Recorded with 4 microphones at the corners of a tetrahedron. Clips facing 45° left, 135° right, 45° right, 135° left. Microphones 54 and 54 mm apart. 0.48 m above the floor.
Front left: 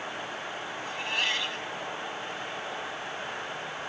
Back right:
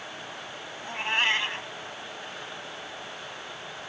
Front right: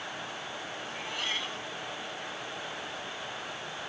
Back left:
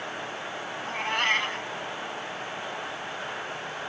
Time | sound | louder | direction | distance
0.8 | a cat meowing | back right 5 dB, back left 11 dB | 170° left | ?